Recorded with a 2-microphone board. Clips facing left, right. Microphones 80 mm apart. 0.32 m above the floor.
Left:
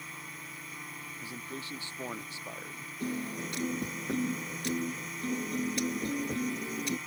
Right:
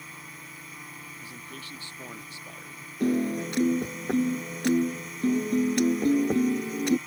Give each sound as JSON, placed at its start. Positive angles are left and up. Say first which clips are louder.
{"t": 0.0, "sound": "a drone", "louder": "even", "side_deg": 0}
{"t": 1.2, "sound": "a man speaking", "louder": "left 1 dB", "side_deg": 25}
{"t": 3.0, "sound": "a piano", "louder": "right 10 dB", "side_deg": -75}